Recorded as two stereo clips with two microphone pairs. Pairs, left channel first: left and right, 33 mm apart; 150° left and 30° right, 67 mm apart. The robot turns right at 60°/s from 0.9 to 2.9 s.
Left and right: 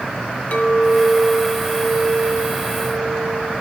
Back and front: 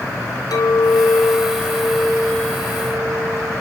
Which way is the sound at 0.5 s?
135° left.